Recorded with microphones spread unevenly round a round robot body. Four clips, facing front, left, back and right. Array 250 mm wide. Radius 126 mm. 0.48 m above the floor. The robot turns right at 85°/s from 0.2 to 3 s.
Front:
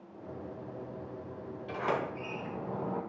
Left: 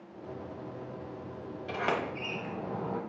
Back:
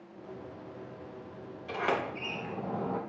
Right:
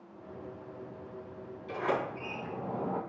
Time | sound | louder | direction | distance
1.7 | a sliding door | even, back 2 dB | 90° left | 2.5 m